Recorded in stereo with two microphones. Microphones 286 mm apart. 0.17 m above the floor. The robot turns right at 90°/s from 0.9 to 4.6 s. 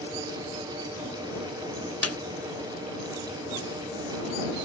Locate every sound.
2.0 s a snare drum: 60° left (ahead or behind); by 2.2 s 55° left (ahead or behind)